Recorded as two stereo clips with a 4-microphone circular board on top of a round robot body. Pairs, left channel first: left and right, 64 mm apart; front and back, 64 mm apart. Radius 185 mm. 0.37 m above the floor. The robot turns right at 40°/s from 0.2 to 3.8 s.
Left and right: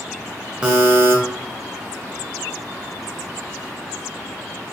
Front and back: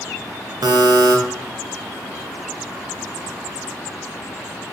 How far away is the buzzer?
About 0.5 m.